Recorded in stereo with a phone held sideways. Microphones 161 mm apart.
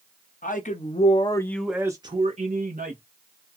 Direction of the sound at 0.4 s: 55° left (ahead or behind).